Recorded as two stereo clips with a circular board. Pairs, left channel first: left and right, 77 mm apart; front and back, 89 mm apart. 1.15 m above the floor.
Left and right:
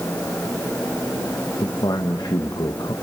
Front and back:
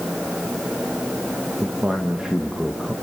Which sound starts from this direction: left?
A man speaking, at 1.6 s.